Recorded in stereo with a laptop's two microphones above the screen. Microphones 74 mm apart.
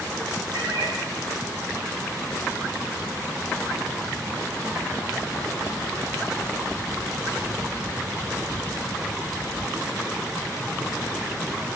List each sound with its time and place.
0.5 s a cat meowing: 65° right (ahead or behind), 8.5 m